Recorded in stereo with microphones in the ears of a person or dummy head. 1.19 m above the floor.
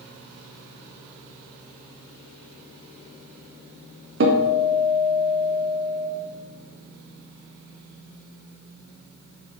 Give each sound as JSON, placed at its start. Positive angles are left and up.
{"t": 4.2, "sound": "a guitar", "side_deg": -55, "distance_m": 0.8}